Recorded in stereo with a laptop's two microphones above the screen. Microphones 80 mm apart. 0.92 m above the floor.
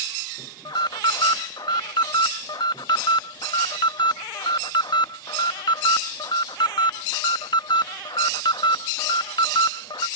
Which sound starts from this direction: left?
An alarm, at 0.7 s.